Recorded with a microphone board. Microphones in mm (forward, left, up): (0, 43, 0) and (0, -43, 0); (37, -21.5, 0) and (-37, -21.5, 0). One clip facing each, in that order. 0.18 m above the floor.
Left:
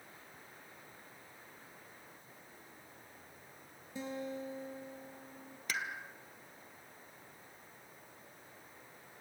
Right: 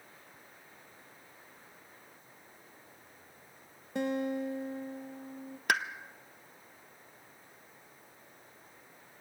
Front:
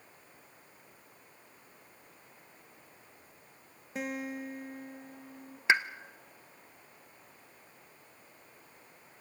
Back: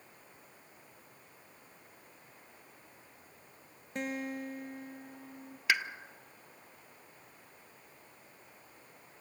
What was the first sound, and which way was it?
A guitar, 85° right.